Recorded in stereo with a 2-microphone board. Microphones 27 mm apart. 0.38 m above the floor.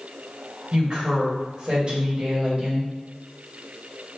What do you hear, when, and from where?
0.7 s a woman speaking: 40° right (ahead or behind), 1.8 m